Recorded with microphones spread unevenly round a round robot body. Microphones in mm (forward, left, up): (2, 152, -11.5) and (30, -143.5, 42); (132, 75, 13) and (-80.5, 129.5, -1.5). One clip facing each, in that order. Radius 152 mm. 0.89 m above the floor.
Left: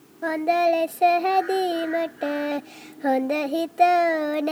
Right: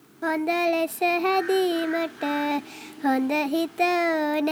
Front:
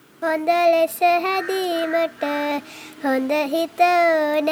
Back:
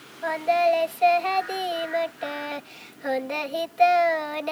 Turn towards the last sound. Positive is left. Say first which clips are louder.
# left 1 dB, front 5 dB
turn(degrees=-10)